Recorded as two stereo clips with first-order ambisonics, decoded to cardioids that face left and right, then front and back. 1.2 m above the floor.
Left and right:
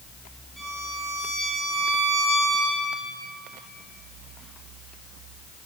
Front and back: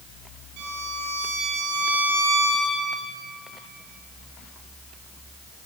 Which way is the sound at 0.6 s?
Straight behind.